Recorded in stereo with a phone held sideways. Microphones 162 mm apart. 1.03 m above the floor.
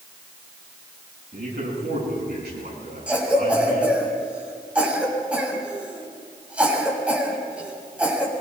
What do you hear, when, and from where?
1.3 s a man speaking: 85° right, 10 m
3.1 s a cough: 5° right (ahead or behind), 7 m